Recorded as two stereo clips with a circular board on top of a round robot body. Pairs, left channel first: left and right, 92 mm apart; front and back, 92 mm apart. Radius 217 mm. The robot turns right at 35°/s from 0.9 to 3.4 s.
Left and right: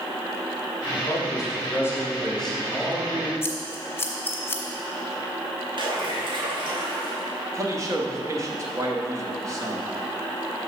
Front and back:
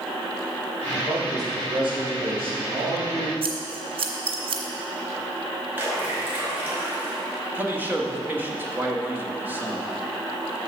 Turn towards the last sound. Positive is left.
turn(degrees=-120)